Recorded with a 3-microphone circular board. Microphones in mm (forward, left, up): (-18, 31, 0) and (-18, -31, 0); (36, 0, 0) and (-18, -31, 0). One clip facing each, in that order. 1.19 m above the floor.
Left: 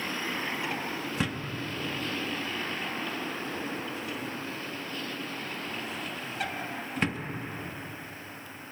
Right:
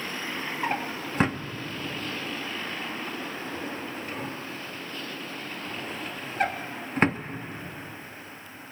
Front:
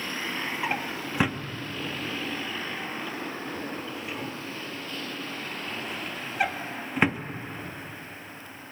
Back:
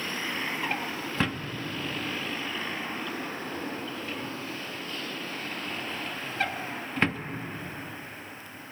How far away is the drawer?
About 1.1 m.